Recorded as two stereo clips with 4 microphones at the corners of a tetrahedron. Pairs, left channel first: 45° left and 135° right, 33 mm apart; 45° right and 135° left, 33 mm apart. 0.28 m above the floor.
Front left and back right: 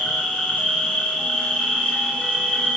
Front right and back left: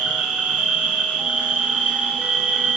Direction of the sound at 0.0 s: 85° left.